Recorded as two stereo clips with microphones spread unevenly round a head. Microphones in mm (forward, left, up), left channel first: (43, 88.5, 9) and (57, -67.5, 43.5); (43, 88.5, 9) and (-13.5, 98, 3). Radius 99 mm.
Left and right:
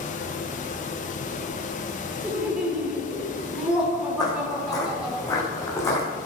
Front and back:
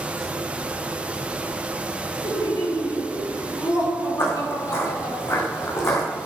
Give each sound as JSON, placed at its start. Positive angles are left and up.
{"t": 0.0, "sound": "a fan", "azimuth_deg": 105, "distance_m": 1.2}
{"t": 2.2, "sound": "laughter", "azimuth_deg": 0, "distance_m": 5.0}
{"t": 4.2, "sound": "footsteps", "azimuth_deg": 30, "distance_m": 4.5}